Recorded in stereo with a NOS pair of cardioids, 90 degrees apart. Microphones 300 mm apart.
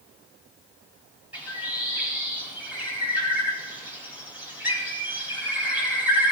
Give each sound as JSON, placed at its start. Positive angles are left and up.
{"t": 1.3, "sound": "a bird", "azimuth_deg": -5, "distance_m": 4.0}